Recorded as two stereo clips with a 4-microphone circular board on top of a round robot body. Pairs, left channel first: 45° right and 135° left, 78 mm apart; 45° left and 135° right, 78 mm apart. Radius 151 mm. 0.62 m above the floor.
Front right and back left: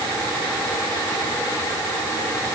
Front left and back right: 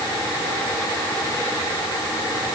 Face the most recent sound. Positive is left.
No sound to turn to.